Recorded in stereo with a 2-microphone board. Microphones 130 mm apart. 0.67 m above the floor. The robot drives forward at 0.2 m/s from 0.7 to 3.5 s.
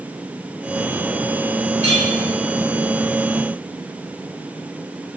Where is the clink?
60° right (ahead or behind), 1.6 m; by 2.0 s 55° right (ahead or behind), 1.6 m.